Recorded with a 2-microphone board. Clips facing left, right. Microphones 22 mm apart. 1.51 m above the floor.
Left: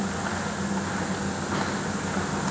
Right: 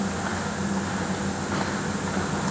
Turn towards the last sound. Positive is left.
No sound to turn to.